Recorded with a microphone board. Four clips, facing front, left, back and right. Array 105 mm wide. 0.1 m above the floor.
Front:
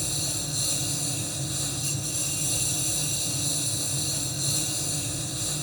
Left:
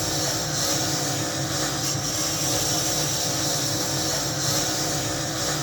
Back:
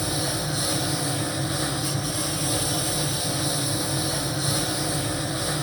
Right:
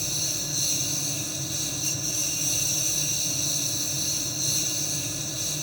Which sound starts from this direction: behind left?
A lawn mower, at 0.0 s.